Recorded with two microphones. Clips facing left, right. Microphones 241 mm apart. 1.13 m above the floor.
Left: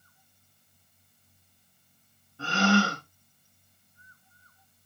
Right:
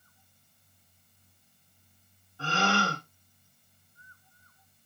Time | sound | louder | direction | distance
2.4 | a gasp | left 6 dB | 65° left (ahead or behind) | 1.9 m